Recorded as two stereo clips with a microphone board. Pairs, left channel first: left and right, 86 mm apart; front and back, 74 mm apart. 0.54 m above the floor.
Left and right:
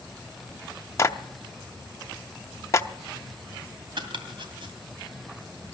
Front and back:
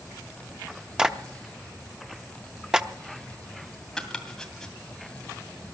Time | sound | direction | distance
1.0 | a clap | 105° left | 0.7 m
4.0 | chopping | 85° right | 2 m